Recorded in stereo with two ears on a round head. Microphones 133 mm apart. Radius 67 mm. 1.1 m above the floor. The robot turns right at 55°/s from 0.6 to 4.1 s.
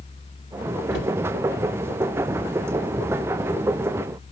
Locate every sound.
0.9 s a cupboard door: 80° left, 3 m